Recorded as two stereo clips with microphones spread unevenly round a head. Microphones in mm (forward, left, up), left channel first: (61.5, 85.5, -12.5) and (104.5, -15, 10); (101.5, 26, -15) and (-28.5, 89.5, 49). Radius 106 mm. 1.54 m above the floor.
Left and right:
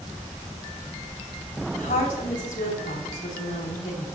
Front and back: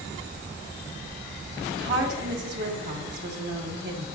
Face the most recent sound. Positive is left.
turn(degrees=165)